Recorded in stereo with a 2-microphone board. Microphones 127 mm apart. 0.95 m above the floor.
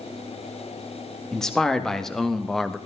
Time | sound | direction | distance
1.3 | a man speaking | 5° left (ahead or behind) | 1.9 m